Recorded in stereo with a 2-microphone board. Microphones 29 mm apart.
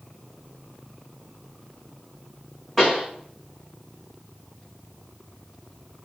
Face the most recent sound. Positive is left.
turn(degrees=15)  # may be behind; listen again after turning